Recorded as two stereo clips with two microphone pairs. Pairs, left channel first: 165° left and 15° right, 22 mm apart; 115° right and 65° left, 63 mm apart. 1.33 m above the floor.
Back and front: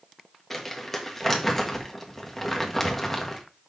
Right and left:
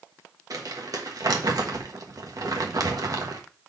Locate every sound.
0.5 s crumpling: 85° left, 1.3 m